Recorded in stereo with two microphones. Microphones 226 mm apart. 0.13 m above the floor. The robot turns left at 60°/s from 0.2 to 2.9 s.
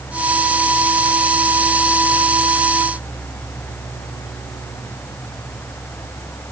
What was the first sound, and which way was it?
Only background noise.